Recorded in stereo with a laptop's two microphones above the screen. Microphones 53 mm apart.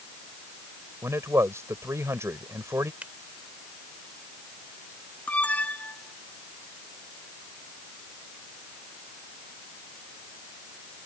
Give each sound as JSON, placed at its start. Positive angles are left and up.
{"t": 1.0, "sound": "a man speaking", "side_deg": -60}
{"t": 3.0, "sound": "a finger snap", "side_deg": -30}
{"t": 5.3, "sound": "an alarm", "side_deg": 25}